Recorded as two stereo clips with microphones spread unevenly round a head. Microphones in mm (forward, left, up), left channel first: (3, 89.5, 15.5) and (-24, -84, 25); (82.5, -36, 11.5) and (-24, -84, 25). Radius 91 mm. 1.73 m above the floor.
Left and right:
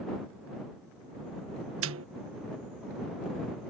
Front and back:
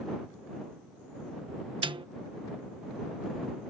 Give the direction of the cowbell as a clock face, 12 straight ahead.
I don't hear a cowbell.